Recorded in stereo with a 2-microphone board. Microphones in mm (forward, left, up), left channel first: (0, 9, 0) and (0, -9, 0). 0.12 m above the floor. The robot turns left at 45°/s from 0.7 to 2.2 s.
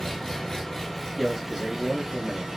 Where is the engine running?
30° left, 0.8 m; by 2.6 s 40° right, 0.8 m.